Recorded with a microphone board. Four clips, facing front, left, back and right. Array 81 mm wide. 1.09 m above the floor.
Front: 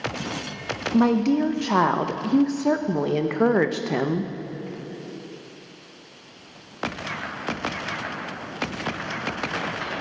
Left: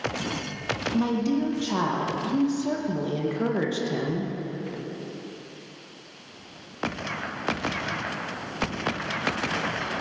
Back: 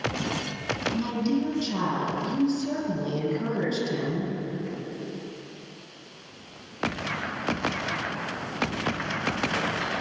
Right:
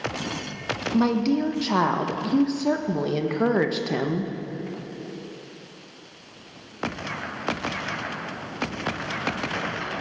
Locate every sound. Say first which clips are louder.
0.9 s a woman speaking: right 4 dB, front 9 dB; 20° right, 0.6 m